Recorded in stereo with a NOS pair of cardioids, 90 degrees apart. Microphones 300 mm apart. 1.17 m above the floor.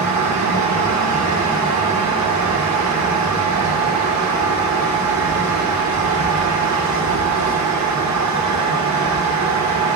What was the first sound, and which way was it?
A fan, 60° right.